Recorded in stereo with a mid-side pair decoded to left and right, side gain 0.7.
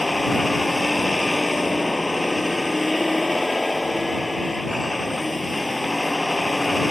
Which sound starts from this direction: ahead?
A vehicle, at 0.0 s.